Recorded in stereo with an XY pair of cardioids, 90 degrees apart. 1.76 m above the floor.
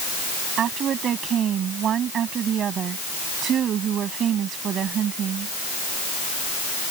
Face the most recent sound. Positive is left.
turn(degrees=-70)